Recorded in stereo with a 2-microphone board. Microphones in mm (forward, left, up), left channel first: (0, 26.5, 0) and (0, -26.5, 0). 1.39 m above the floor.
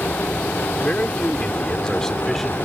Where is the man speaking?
30° left (ahead or behind); by 2.6 s 5° left (ahead or behind).